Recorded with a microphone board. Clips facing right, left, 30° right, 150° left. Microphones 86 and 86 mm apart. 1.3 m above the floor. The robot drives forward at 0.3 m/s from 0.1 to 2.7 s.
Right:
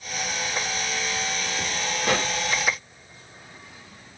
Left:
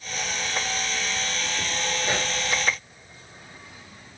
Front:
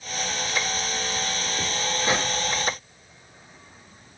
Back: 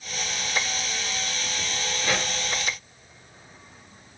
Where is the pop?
95° right, 1.3 m; by 2.3 s 100° right, 1.3 m.